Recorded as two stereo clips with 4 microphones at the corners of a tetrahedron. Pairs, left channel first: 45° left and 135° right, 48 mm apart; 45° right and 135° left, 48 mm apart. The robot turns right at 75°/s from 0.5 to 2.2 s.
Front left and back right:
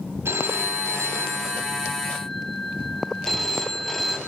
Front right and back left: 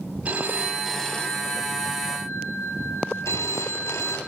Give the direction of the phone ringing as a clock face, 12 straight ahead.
5 o'clock.